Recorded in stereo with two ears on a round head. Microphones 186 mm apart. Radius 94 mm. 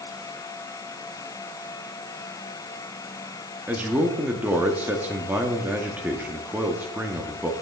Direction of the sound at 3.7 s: 5° right (ahead or behind).